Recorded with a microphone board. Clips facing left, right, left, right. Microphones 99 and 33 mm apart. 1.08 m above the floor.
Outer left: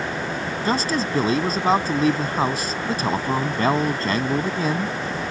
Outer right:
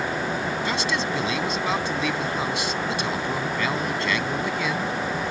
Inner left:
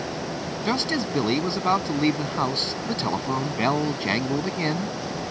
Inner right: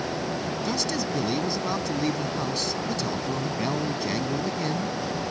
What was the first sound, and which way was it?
A man speaking, 40° left (ahead or behind).